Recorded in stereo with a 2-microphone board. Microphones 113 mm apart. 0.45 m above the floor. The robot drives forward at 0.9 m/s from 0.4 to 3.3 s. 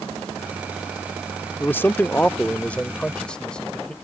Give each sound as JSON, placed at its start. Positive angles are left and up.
{"t": 1.6, "sound": "a man speaking", "side_deg": 20}